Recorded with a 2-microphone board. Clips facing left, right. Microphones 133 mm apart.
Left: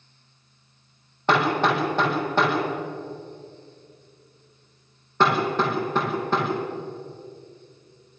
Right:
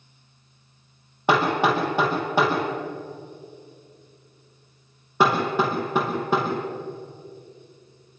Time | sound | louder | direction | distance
1.3 | hammering | right 1 dB | 10° right (ahead or behind) | 7.5 m